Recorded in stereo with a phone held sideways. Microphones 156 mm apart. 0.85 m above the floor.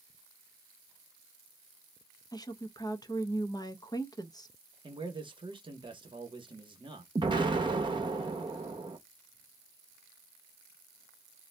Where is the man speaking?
30° right (ahead or behind), 1.0 m.